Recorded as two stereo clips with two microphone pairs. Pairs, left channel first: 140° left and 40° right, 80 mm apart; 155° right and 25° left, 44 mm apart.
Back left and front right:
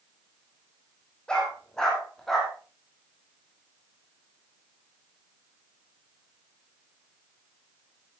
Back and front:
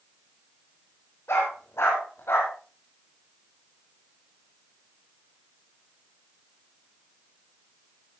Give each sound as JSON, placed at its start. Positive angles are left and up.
{"t": 1.3, "sound": "a dog barking", "azimuth_deg": -145, "distance_m": 5.5}